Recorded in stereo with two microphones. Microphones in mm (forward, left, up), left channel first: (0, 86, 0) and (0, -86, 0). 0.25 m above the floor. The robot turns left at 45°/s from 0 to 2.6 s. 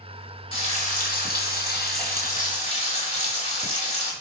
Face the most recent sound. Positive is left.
turn(degrees=50)